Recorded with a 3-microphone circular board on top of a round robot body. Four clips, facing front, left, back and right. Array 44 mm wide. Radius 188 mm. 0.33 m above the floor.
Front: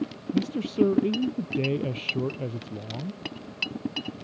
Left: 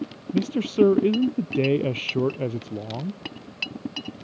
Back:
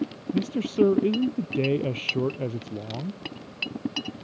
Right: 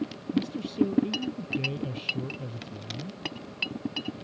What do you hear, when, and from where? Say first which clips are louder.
0.3 s a man speaking: left 6 dB, back 1 dB; 100° left